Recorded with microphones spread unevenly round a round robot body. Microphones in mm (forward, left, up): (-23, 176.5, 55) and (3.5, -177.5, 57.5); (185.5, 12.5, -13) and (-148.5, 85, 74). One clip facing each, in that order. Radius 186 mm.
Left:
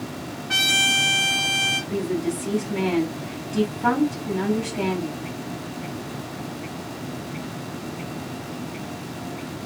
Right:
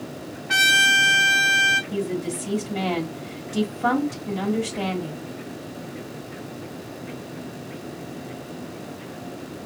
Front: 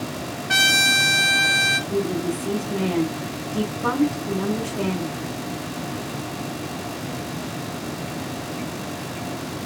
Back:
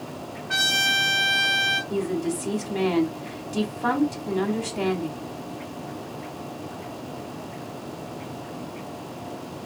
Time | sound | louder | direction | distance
0.5 | a trumpet | left 1 dB, front 6 dB | 5° right | 1.0 m
1.9 | a woman speaking | left 2 dB, front 2 dB | 140° right | 1.2 m